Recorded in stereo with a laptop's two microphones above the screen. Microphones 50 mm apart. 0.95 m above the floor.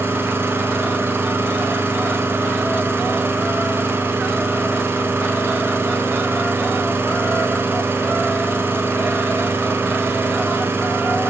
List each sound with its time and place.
0.0 s an engine running: 50° right (ahead or behind), 5.5 m